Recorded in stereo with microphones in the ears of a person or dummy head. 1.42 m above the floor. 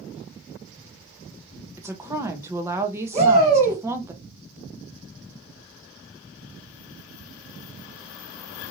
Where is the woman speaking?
15° right (ahead or behind), 0.7 m.